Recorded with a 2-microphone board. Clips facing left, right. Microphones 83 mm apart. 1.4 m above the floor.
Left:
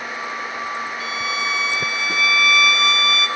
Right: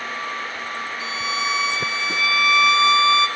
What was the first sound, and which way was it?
A violin, 25° right (ahead or behind).